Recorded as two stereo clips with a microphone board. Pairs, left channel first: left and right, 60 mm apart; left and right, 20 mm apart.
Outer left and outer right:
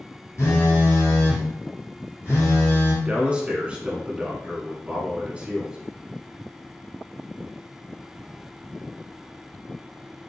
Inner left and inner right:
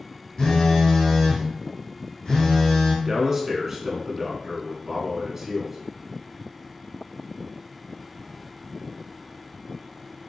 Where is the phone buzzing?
45° left (ahead or behind), 1.7 m.